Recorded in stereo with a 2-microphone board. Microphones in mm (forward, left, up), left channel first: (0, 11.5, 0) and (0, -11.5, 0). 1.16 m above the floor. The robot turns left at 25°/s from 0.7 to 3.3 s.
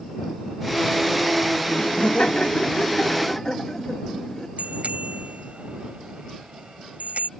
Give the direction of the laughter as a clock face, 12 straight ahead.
10 o'clock.